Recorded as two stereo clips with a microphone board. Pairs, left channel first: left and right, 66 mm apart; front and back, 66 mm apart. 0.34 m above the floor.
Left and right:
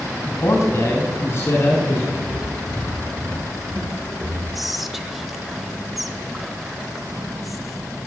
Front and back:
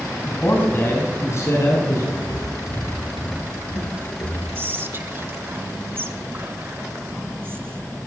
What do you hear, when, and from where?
0.3 s a man speaking: 65° left, 2 m; by 2.1 s 35° left, 4 m
2.2 s footsteps: 25° right, 4 m; by 4.5 s 5° right, 4.5 m
4.5 s whispering: 175° right, 0.9 m